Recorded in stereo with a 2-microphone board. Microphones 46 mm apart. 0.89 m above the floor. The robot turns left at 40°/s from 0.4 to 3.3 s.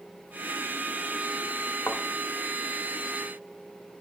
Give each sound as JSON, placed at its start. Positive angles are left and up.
{"t": 1.9, "sound": "a thud", "side_deg": 60, "distance_m": 0.8}